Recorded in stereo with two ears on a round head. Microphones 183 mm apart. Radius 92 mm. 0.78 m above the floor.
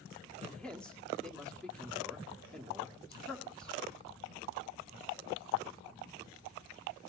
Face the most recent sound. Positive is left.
turn(degrees=5)  # may be behind; listen again after turning